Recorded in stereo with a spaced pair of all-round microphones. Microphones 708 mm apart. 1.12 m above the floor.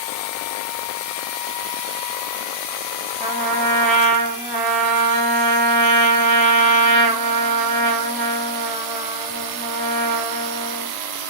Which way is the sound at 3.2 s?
Centre (ahead or behind).